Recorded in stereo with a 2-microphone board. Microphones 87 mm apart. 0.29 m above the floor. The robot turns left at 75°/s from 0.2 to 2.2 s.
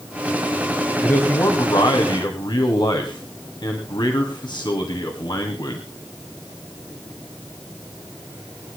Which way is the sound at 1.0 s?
165° left.